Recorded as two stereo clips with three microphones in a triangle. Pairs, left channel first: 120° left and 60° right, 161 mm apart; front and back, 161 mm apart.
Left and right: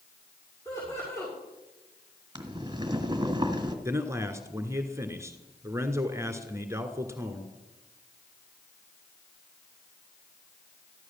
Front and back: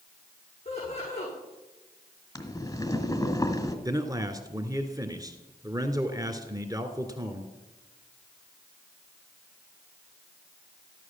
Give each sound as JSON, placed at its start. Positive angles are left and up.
{"t": 0.7, "sound": "laughter", "azimuth_deg": 50, "distance_m": 8.0}
{"t": 2.4, "sound": "boiling", "azimuth_deg": -40, "distance_m": 1.8}
{"t": 3.9, "sound": "a man speaking", "azimuth_deg": -125, "distance_m": 1.6}